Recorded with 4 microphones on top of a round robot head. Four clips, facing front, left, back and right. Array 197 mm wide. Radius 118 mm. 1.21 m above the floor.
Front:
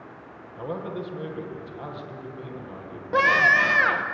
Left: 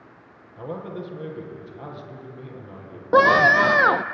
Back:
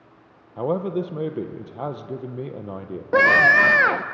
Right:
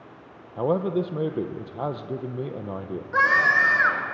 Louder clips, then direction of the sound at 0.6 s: Right 9 dB, back 8 dB; 130° right.